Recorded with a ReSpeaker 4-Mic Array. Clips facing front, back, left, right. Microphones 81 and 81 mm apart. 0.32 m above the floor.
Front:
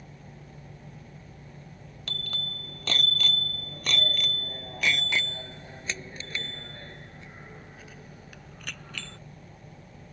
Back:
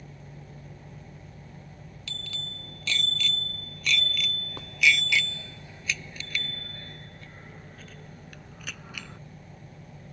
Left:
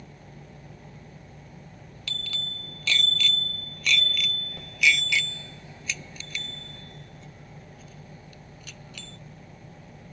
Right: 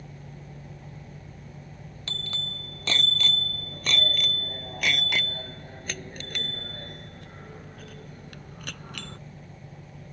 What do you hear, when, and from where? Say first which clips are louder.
2.1 s a bicycle bell: front 4 dB, even; 40° right; by 9.2 s 105° right